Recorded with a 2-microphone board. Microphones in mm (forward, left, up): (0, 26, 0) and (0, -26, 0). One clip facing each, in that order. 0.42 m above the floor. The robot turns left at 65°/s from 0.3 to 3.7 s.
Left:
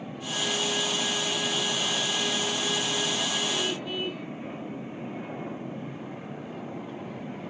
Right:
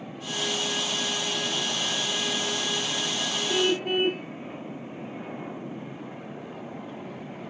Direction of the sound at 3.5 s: 60° right (ahead or behind).